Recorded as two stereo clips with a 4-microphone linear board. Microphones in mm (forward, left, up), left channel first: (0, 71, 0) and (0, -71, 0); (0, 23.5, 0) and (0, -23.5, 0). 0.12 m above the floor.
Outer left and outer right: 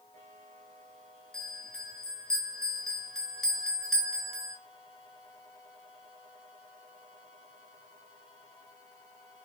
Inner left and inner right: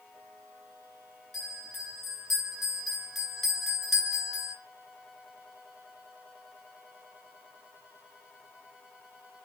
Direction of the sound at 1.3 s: 5° left (ahead or behind).